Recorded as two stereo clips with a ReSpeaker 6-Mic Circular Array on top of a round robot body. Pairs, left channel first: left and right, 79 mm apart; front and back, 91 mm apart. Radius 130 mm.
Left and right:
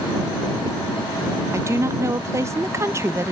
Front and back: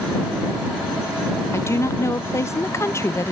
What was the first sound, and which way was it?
A woman speaking, 50° right.